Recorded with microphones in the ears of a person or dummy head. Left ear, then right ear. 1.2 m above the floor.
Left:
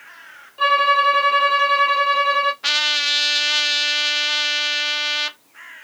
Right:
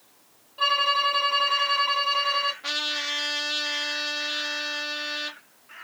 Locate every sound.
0.6 s a violin: centre (ahead or behind), 2.0 m
2.6 s a trumpet: 40° left (ahead or behind), 0.7 m